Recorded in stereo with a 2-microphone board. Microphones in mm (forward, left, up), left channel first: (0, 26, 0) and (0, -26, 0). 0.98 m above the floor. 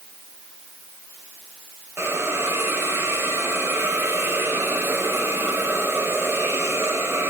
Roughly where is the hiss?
Right.